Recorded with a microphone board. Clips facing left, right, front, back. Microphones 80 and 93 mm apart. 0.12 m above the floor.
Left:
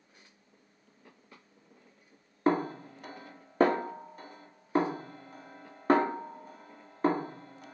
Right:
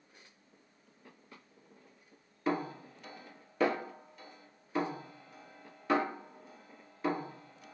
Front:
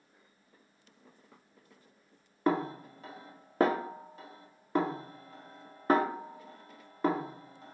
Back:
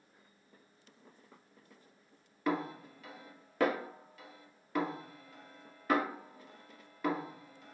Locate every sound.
2.5 s a snare drum: 50° left, 0.6 m